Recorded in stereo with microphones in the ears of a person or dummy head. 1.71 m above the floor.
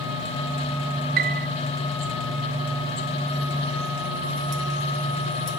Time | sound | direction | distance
1.2 | a piano | 45° right (ahead or behind) | 0.6 m